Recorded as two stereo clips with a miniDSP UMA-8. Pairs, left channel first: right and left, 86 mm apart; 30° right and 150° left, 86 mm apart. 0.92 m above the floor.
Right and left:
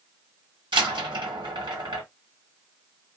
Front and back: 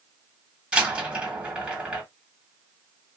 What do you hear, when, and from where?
0.7 s a door slam: 70° left, 1.8 m